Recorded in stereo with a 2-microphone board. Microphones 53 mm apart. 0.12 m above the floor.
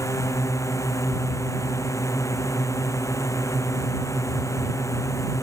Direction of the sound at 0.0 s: 70° left (ahead or behind).